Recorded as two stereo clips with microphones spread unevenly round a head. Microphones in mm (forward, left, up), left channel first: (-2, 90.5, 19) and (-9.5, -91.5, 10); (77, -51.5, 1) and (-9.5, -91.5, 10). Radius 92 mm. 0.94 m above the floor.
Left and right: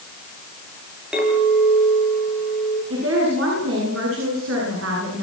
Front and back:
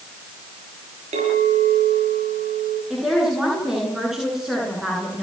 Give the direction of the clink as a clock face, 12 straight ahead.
6 o'clock.